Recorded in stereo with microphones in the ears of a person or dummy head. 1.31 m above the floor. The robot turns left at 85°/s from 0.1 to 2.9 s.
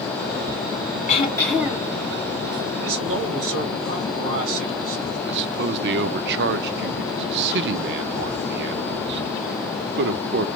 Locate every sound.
1.1 s throat clearing: 35° left, 1.5 m; by 1.9 s 35° right, 1.5 m
2.8 s a man speaking: 75° right (ahead or behind), 1.9 m; by 5.2 s 80° right, 1.9 m
5.3 s a man speaking: 65° right (ahead or behind), 0.5 m